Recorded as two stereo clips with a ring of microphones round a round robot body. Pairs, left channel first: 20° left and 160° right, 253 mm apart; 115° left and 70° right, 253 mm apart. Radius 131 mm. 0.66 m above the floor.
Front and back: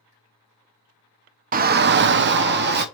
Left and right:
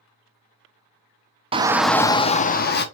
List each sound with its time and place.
1.5 s a shout: 125° right, 0.6 m; by 2.9 s 155° left, 1.0 m